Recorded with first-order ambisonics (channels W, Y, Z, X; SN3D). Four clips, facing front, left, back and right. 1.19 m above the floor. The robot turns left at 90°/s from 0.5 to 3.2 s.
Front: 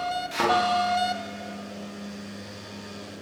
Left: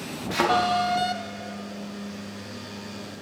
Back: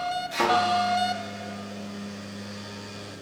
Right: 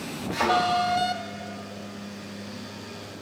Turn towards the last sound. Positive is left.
turn(degrees=-165)